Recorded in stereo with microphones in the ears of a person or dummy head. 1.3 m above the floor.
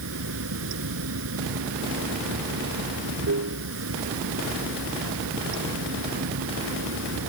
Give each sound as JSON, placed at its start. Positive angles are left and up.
{"t": 0.0, "sound": "running water", "side_deg": -75}